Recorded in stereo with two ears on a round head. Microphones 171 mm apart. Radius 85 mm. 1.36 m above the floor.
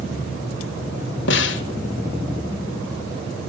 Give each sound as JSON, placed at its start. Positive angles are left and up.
{"t": 1.3, "sound": "a snare drum", "side_deg": 65, "distance_m": 2.0}